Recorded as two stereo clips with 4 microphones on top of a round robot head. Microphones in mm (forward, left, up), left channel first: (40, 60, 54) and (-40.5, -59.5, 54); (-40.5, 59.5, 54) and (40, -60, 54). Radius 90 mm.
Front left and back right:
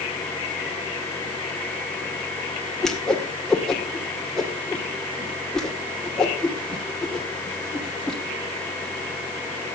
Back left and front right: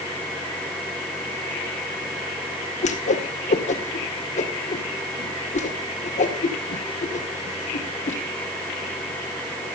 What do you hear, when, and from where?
2.8 s a whoosh: 140° left, 2 m